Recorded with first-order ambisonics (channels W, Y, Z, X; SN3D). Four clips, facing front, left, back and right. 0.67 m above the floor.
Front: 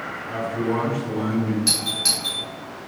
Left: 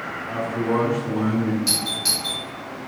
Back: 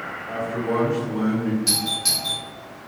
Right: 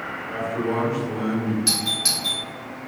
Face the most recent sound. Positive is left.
turn(degrees=-40)